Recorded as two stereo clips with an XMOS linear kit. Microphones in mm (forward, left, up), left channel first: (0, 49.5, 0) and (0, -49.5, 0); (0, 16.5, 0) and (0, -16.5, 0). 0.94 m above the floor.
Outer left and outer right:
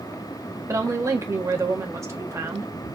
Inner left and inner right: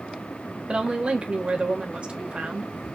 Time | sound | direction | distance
0.7 | a woman speaking | 30° right (ahead or behind) | 1.5 m